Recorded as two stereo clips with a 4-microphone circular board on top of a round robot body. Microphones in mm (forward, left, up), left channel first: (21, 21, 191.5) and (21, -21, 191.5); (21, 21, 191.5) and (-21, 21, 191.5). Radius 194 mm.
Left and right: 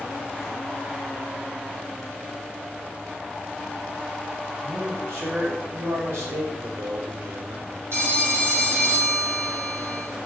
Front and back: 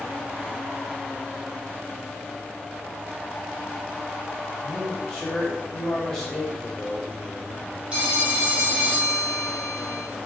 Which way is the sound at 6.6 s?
75° right.